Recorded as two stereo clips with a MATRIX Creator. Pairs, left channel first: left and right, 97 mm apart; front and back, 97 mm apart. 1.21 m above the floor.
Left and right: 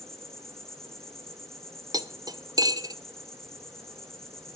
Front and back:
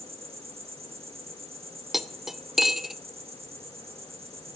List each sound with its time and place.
0.0 s an insect: 175° left, 2 m
1.9 s cutlery clinking: 95° right, 0.6 m